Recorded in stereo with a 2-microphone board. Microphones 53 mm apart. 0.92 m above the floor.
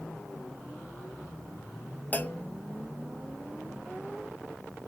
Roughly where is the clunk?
Left.